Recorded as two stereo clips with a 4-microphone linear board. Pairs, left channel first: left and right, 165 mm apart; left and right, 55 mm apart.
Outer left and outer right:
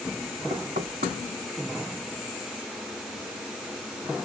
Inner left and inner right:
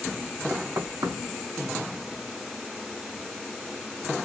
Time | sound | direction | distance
0.5 | knocking | 70° right (ahead or behind) | 2 m